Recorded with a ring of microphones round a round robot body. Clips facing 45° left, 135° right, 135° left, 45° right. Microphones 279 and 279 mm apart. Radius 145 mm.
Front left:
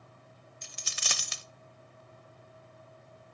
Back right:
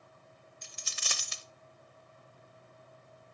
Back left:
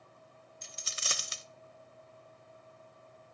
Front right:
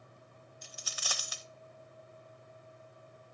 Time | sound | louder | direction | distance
0.6 | a dropped coin | front left 3 dB, back left 1 dB | 70° left | 0.7 m